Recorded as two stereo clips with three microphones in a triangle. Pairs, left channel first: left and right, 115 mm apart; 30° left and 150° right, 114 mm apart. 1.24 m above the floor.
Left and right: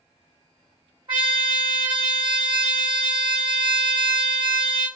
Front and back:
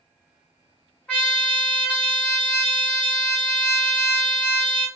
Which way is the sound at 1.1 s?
50° right.